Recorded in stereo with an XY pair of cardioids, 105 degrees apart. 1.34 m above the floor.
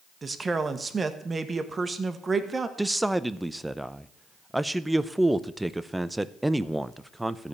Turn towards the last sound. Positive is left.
turn(degrees=-10)